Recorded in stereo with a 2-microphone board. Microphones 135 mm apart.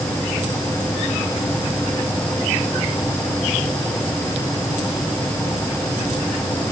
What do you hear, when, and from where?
Only background noise.